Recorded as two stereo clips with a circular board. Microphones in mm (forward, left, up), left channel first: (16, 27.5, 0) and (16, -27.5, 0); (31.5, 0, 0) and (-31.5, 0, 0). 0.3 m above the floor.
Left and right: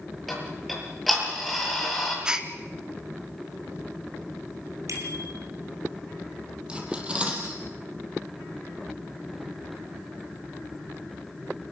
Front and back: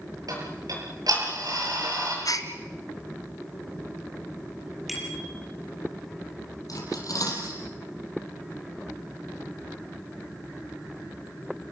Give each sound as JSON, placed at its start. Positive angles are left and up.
{"t": 0.3, "sound": "ticking", "azimuth_deg": 180, "distance_m": 8.0}
{"t": 2.2, "sound": "a gasp", "azimuth_deg": -10, "distance_m": 1.7}
{"t": 4.9, "sound": "a bicycle bell", "azimuth_deg": -90, "distance_m": 5.5}
{"t": 6.7, "sound": "cutlery clinking", "azimuth_deg": -20, "distance_m": 4.5}